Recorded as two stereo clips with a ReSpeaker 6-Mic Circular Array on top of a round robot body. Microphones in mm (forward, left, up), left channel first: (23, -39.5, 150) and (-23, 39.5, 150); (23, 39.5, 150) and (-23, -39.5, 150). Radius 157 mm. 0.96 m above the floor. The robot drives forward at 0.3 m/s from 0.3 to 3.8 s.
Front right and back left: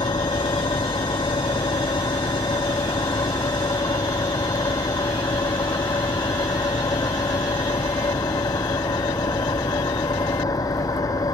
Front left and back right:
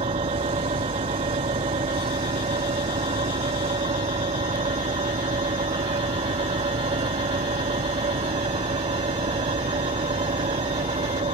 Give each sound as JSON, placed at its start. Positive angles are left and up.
{"t": 0.0, "sound": "an engine running", "azimuth_deg": -105}